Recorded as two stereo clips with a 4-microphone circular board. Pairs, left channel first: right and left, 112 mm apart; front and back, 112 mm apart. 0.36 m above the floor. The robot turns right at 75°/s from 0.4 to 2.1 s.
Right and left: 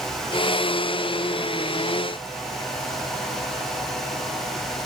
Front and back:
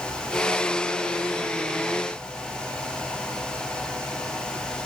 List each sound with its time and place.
Only background noise.